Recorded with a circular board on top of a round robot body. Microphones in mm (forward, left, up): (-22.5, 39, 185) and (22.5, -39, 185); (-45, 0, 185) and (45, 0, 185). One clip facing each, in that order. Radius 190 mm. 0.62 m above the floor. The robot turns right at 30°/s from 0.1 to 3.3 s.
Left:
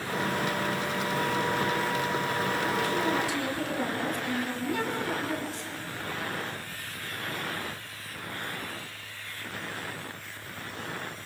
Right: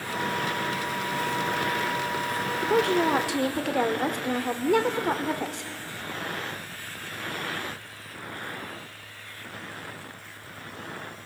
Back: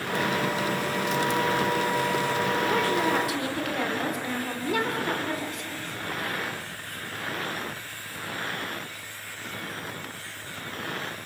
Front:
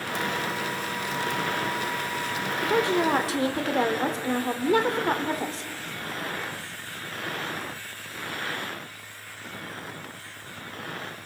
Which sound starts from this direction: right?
A woman speaking, at 2.6 s.